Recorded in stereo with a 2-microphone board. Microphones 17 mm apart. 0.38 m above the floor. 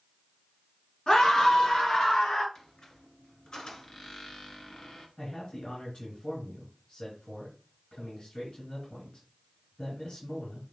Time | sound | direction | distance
1.1 | a scream | 55° left (ahead or behind) | 4 m
2.5 | a squeak | 45° left (ahead or behind) | 1.9 m
5.2 | a man speaking | 65° left (ahead or behind) | 5 m